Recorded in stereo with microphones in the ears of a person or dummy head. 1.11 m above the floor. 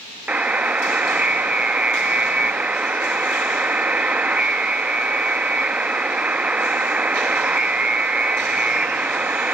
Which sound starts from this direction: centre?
A buzzer, at 0.3 s.